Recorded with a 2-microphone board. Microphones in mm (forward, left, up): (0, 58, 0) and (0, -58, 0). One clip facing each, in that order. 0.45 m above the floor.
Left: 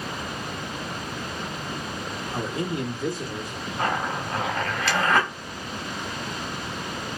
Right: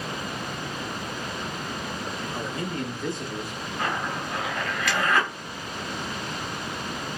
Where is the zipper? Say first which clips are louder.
Left 3 dB; 30° left (ahead or behind), 2 m.